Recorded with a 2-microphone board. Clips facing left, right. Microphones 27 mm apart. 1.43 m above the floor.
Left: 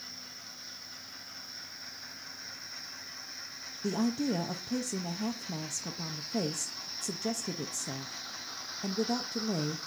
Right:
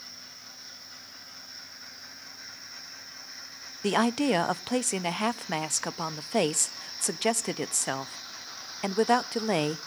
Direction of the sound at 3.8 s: 70° right (ahead or behind).